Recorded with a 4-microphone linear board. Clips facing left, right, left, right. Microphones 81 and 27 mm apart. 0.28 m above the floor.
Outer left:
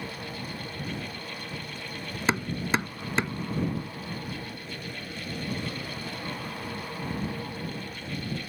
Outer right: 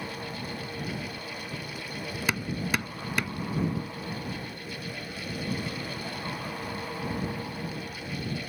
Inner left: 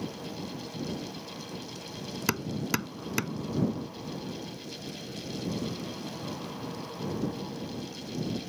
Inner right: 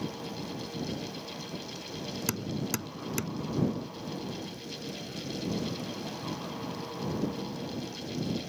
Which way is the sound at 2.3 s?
30° left (ahead or behind).